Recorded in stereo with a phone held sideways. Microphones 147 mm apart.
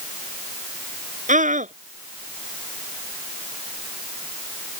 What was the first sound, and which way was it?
A scream, 60° right (ahead or behind).